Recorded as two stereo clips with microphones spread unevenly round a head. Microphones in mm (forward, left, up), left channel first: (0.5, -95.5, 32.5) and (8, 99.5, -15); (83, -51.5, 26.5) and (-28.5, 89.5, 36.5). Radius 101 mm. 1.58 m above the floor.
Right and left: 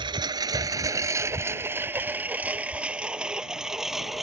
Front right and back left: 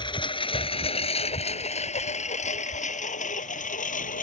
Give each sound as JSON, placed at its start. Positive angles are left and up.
{"t": 0.0, "sound": "a lawn mower", "azimuth_deg": 15}